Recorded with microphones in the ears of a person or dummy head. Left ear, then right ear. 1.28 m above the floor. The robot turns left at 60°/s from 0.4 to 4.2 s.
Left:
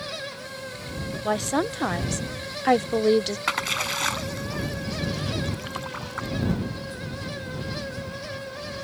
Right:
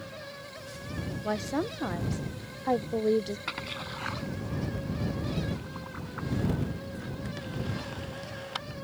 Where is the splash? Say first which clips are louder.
Left 11 dB; 35° left (ahead or behind); by 6.3 s 80° left.